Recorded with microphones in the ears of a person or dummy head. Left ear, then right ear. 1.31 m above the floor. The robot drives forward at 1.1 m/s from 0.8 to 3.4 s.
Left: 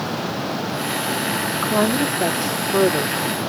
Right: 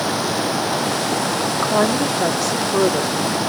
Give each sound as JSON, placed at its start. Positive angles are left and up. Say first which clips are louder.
{"t": 1.6, "sound": "a woman speaking", "louder": "right 2 dB", "side_deg": -15}